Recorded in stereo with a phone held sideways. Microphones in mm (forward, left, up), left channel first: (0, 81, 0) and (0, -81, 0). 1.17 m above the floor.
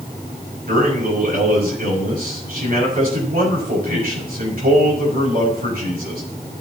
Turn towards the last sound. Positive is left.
turn(degrees=-70)  # may be behind; listen again after turning